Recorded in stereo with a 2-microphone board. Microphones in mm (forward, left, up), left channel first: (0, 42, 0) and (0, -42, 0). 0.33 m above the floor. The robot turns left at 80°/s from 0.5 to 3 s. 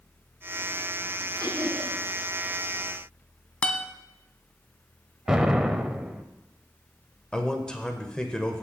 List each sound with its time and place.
1.4 s laughter: 105° right, 4.5 m; by 2.0 s 150° right, 4.5 m
3.6 s a guitar: 20° left (ahead or behind), 0.7 m
5.3 s an explosion: 10° right (ahead or behind), 0.6 m
7.3 s a man speaking: 10° left (ahead or behind), 0.9 m